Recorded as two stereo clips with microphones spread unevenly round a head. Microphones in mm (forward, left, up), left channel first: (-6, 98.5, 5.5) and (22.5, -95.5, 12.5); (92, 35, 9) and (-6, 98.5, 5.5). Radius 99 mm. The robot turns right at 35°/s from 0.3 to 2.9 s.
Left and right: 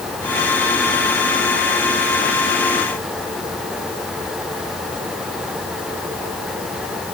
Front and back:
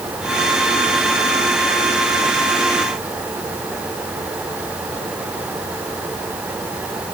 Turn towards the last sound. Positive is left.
No sound to turn to.